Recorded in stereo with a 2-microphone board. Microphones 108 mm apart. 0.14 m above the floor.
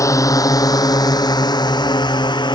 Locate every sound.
0.0 s a drone: 30° left (ahead or behind); by 2.6 s 45° left (ahead or behind)